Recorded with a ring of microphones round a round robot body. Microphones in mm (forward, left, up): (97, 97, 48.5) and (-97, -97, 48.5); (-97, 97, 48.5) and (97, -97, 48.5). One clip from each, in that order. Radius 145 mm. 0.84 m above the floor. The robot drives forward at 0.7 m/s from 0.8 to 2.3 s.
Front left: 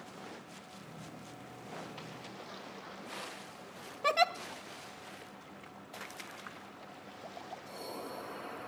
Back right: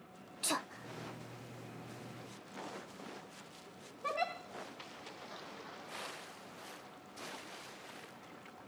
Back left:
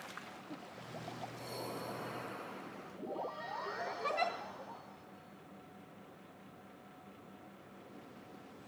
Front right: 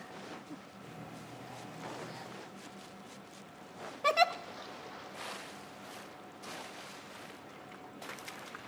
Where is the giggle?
5° right, 0.6 m.